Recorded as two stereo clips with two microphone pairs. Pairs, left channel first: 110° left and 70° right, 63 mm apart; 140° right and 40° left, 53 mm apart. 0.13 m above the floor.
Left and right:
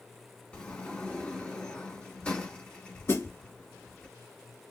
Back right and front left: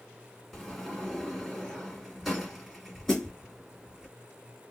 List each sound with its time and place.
0.5 s a sliding door: 135° left, 1.4 m
3.1 s a snare drum: 135° left, 2.5 m